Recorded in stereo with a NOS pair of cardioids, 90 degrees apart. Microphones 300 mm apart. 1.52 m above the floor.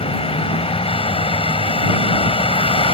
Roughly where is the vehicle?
Ahead.